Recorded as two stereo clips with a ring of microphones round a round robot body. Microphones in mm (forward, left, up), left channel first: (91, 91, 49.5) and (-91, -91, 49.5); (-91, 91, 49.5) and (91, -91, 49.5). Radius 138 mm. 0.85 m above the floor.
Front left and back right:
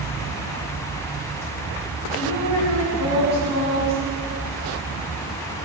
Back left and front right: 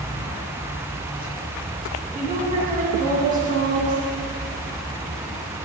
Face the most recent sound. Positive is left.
turn(degrees=15)